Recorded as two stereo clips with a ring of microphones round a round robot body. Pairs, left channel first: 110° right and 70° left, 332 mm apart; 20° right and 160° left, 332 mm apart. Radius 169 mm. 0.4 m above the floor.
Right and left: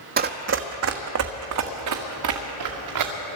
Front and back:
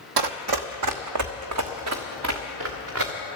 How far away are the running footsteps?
About 0.9 m.